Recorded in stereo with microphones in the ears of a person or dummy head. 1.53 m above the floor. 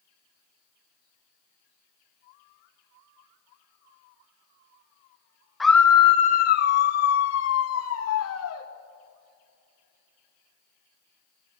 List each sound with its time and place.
5.6 s a scream: 5° right (ahead or behind), 0.6 m; by 8.7 s 85° left, 1.9 m